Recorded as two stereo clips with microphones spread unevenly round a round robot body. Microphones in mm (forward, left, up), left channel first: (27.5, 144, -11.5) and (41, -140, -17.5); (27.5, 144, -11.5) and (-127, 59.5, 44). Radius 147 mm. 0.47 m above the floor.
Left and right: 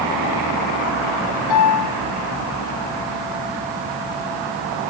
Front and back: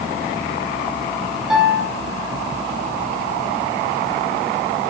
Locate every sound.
1.5 s a piano: 120° left, 5 m